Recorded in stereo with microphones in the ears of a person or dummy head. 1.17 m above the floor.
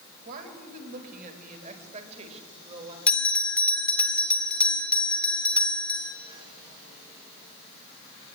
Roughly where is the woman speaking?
Right.